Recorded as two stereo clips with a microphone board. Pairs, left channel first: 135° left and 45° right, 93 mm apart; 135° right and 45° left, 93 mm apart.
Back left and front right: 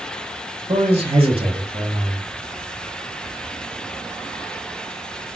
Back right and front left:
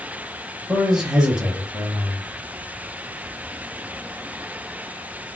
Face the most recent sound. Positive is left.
turn(degrees=-35)